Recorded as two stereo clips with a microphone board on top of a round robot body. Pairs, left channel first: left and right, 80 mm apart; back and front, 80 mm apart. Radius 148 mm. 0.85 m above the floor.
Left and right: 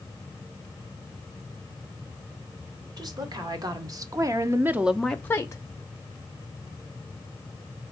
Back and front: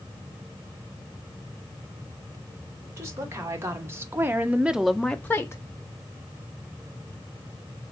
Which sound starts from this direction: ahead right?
A woman speaking, at 3.0 s.